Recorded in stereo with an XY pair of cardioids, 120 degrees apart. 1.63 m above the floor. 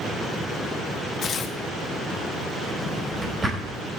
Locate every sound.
1.2 s tearing paper: 40° left, 1.3 m
2.8 s a drawer: 20° right, 3.5 m